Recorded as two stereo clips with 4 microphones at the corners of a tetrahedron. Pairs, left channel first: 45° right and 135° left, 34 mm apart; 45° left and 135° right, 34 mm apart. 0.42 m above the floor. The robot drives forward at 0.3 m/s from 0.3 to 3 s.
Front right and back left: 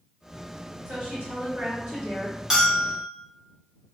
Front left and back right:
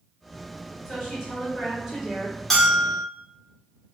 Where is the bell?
115° left, 0.9 m; by 3.0 s 130° left, 1.0 m.